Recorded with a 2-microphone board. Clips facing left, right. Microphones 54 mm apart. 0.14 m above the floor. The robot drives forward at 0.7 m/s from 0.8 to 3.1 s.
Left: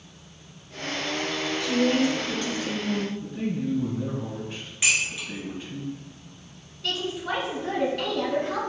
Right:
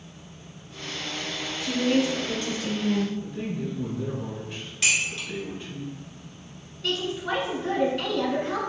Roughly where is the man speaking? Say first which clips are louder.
Left 3 dB; centre.